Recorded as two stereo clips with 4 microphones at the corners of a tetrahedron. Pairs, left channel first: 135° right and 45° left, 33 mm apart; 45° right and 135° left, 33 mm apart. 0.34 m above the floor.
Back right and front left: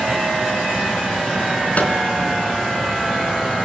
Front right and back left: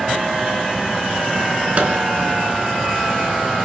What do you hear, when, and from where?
1.8 s a microwave: 175° right, 3.5 m